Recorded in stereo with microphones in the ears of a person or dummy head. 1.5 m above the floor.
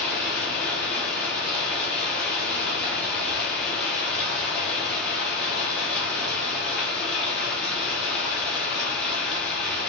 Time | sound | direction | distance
0.0 | running water | centre (ahead or behind) | 0.9 m